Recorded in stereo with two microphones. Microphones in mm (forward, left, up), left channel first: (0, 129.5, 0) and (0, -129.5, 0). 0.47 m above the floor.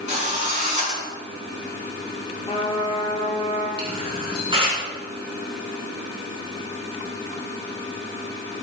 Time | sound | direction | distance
0.1 | a drill | 30° right (ahead or behind) | 5.5 m
2.5 | a trumpet | 25° left (ahead or behind) | 2 m
3.8 | a camera shutter | 20° right (ahead or behind) | 6 m